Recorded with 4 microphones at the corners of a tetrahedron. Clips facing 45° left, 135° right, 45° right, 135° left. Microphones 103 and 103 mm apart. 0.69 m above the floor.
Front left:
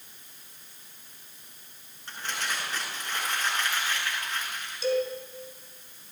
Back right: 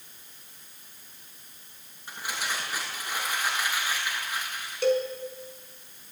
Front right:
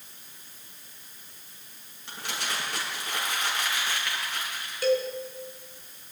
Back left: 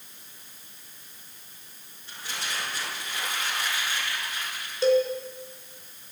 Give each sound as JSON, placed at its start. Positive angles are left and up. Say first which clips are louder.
{"t": 2.1, "sound": "crumpling", "louder": "even, front right 2 dB", "azimuth_deg": -55, "distance_m": 10.0}
{"t": 4.8, "sound": "a cowbell", "louder": "back right 2 dB, back left 4 dB", "azimuth_deg": -160, "distance_m": 4.0}